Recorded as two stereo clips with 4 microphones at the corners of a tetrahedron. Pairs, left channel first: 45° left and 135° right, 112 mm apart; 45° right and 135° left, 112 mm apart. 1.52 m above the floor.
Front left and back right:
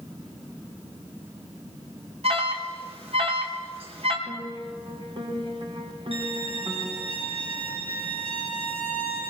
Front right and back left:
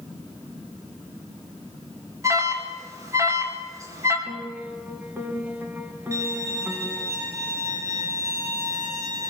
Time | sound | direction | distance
2.2 | an alarm | 165° right | 3.5 m
4.3 | a piano | 155° right | 2.5 m
6.1 | a violin | 165° right | 6 m